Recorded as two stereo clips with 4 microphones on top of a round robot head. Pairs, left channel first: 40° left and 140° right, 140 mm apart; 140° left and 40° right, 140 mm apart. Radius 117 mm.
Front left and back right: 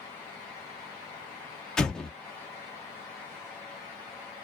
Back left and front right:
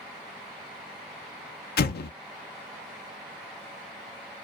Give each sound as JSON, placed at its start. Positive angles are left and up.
{"t": 1.8, "sound": "an explosion", "azimuth_deg": 125, "distance_m": 0.6}